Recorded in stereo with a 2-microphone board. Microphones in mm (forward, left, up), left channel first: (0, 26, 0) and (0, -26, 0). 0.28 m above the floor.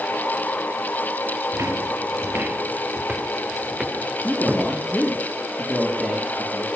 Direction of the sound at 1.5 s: 75° right (ahead or behind).